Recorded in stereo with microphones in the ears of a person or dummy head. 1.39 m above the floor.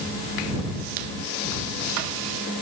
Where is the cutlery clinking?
I don't hear cutlery clinking.